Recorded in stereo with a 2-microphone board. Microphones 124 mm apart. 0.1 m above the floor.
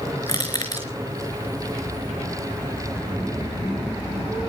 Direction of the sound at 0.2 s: 30° left (ahead or behind).